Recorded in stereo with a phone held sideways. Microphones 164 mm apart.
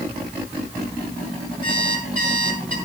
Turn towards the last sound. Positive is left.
turn(degrees=-55)  # may be behind; listen again after turning